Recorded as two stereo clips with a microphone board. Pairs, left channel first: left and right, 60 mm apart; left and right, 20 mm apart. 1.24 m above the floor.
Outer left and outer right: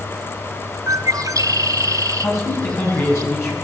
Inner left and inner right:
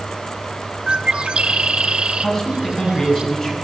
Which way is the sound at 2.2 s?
45° left (ahead or behind).